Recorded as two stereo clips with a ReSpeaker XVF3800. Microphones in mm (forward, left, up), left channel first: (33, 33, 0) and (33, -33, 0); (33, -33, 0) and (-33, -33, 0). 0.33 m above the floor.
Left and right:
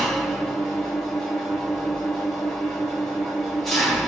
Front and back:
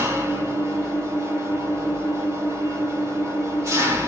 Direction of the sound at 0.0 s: Straight behind.